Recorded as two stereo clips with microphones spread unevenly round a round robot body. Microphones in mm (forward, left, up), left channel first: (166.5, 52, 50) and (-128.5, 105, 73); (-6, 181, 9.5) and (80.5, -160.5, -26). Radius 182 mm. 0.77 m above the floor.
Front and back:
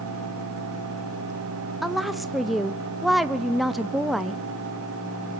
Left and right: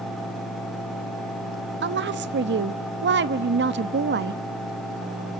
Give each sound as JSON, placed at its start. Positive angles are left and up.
{"t": 1.8, "sound": "a woman speaking", "azimuth_deg": -95, "distance_m": 0.8}